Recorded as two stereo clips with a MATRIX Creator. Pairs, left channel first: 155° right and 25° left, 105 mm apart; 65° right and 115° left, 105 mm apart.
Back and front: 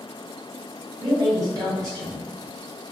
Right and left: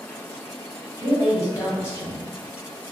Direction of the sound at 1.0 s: 15° right.